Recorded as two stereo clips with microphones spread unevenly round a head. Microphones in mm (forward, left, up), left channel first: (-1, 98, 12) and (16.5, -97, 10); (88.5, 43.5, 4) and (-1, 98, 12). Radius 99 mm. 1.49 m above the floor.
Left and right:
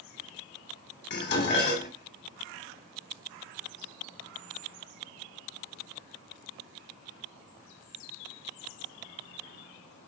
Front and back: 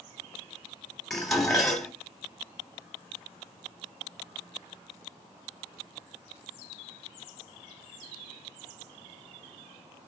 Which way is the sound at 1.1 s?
55° left.